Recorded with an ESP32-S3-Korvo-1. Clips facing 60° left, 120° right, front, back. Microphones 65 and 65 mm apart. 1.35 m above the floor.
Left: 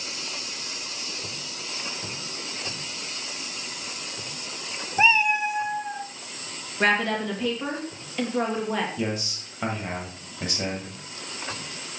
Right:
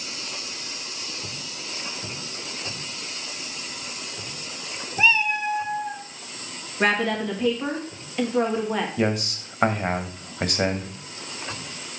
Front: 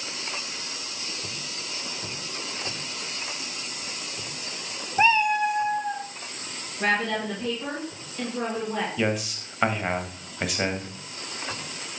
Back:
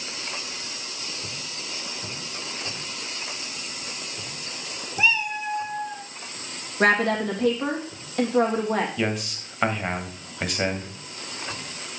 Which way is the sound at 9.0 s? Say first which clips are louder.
Right 5 dB, front 1 dB; 90° right.